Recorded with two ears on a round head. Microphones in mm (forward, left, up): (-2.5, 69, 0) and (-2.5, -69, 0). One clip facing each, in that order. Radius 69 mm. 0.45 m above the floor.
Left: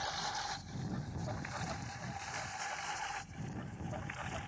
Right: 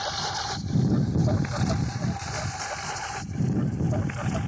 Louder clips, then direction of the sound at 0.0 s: Right 9 dB; 65° right (ahead or behind).